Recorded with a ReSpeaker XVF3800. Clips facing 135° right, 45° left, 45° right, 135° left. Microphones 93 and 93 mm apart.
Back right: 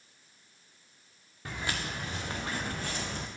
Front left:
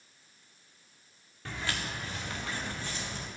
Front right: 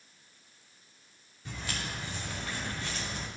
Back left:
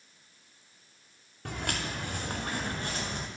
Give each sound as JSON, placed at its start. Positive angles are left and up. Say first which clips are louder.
{"t": 1.4, "sound": "footsteps", "louder": "back right 1 dB, back left 4 dB", "azimuth_deg": 150, "distance_m": 1.3}